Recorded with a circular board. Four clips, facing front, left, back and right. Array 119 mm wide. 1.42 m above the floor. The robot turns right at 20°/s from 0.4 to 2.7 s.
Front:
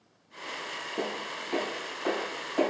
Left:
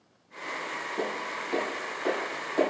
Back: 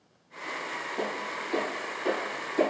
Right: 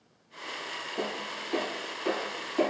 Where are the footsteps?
5° left, 1.8 m; by 2.7 s 80° left, 3 m.